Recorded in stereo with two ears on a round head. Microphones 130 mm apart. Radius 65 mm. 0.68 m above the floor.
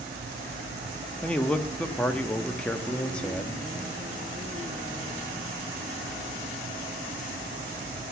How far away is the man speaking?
About 0.7 m.